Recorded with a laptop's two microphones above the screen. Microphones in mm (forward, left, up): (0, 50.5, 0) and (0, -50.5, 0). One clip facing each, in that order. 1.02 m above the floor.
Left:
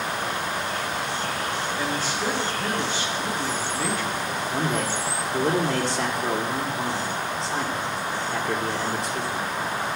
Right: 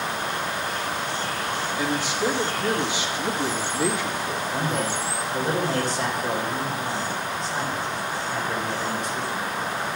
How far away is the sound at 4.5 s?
About 2.5 m.